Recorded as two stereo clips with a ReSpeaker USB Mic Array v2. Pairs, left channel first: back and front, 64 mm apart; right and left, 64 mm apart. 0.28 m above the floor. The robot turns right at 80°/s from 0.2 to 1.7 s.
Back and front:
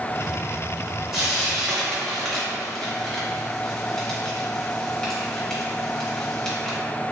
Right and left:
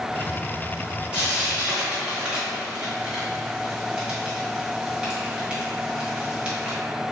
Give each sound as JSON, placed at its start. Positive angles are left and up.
{"t": 1.1, "sound": "frying", "azimuth_deg": 70, "distance_m": 1.3}